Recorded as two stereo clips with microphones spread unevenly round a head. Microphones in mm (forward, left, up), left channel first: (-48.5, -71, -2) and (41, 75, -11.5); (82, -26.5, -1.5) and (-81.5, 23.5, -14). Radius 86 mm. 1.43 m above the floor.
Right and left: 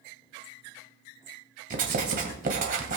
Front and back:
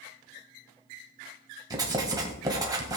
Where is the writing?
95° left, 2 m.